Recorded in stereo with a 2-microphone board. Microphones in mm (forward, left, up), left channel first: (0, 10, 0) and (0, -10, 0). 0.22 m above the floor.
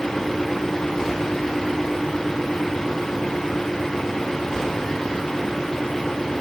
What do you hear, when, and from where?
Only background noise.